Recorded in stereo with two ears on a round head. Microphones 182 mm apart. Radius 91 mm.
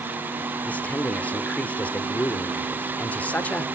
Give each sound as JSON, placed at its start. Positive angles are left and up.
{"t": 0.7, "sound": "a man speaking", "side_deg": 10, "distance_m": 1.2}